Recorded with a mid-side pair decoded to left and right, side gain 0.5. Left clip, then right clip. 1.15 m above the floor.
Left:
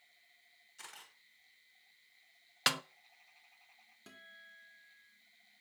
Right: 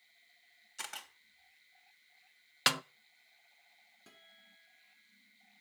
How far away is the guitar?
About 3 m.